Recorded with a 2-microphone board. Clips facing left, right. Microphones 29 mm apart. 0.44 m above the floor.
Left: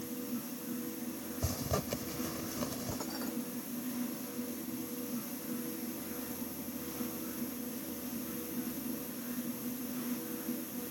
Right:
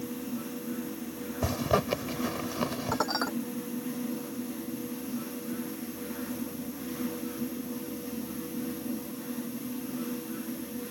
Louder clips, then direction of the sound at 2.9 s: Right 10 dB; 60° right (ahead or behind).